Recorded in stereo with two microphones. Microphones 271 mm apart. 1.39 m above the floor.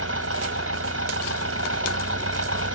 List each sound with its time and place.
0.0 s an engine running: 55° right (ahead or behind)